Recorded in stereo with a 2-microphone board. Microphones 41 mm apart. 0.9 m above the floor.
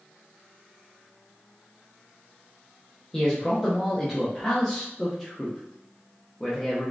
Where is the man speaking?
10° left (ahead or behind), 0.8 m.